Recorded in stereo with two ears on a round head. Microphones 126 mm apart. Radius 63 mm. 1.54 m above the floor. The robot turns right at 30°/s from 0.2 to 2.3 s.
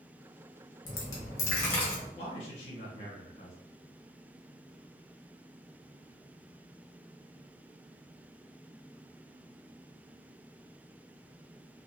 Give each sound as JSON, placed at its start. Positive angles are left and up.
{"t": 0.8, "sound": "a dropped coin", "azimuth_deg": 120, "distance_m": 1.0}
{"t": 2.1, "sound": "a man speaking", "side_deg": 45, "distance_m": 1.1}